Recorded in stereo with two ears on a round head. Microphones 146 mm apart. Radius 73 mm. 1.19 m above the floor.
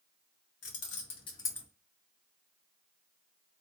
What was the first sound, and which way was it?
Keys jangling, 55° left (ahead or behind).